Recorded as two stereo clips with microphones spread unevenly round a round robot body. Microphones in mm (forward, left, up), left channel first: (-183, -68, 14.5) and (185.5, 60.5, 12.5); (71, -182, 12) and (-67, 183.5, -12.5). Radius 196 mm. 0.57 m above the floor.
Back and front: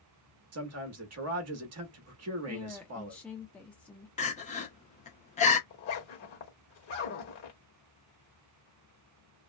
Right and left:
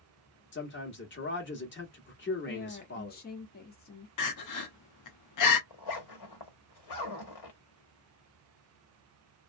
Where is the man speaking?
15° right, 0.9 m.